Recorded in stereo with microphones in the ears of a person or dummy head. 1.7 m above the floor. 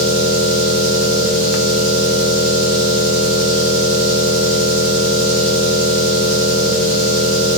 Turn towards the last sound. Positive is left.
turn(degrees=-60)  # may be behind; listen again after turning